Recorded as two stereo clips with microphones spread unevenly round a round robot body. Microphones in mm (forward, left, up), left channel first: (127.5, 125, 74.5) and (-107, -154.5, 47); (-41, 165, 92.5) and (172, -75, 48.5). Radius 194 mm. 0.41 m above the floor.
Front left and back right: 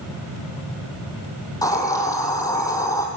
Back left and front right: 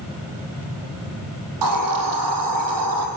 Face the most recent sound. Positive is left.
turn(degrees=-30)